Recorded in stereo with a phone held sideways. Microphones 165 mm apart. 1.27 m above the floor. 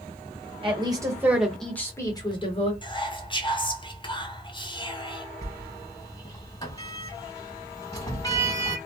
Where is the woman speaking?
30° right (ahead or behind), 1.0 m; by 2.7 s 40° left (ahead or behind), 1.2 m.